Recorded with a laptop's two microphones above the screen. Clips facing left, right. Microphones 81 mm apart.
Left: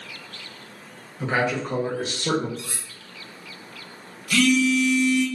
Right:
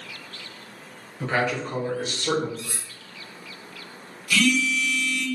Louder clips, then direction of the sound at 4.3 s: Left 3 dB; 40° left (ahead or behind).